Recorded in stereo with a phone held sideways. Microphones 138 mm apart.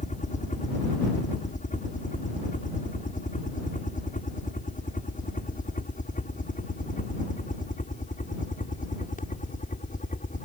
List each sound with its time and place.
0.0 s a helicopter: 60° left (ahead or behind)